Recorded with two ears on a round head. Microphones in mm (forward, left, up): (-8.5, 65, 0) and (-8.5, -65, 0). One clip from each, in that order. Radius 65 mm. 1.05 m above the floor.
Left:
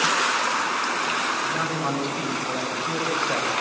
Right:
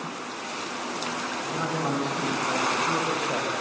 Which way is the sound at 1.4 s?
55° left (ahead or behind).